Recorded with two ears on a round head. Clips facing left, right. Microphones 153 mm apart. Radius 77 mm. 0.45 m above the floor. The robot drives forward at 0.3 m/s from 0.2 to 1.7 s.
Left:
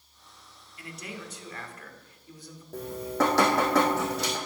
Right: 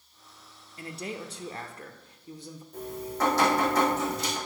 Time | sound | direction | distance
0.8 | a man speaking | 25° right (ahead or behind) | 0.9 m
2.7 | dripping | 55° left (ahead or behind) | 3.5 m